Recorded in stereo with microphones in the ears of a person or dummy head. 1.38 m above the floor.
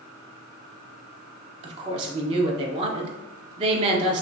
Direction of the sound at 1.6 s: 30° right (ahead or behind).